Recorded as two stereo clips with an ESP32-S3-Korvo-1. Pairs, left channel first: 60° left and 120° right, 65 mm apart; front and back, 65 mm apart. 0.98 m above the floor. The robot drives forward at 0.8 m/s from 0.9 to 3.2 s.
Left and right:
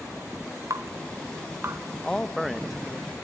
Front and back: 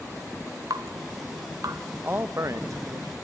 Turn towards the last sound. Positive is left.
turn(degrees=160)